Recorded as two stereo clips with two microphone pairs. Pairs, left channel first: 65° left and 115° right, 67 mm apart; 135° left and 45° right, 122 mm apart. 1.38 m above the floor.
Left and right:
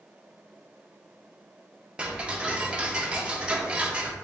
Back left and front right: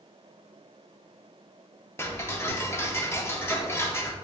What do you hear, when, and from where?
2.0 s ticking: 170° right, 0.5 m